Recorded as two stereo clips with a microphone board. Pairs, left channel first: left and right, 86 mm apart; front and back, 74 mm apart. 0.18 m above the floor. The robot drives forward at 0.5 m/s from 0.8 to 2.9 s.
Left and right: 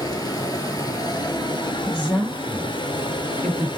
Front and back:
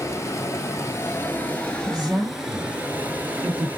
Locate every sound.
0.0 s running water: 50° left, 1.2 m; by 3.8 s 110° left, 1.0 m
1.9 s a woman speaking: straight behind, 2.5 m